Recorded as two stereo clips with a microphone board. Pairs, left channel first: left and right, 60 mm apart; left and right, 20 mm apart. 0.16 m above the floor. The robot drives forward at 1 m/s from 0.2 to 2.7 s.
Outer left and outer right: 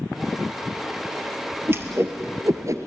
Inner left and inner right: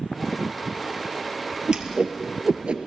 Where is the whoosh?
40° right (ahead or behind), 2.5 m; by 2.9 s 55° right (ahead or behind), 1.8 m.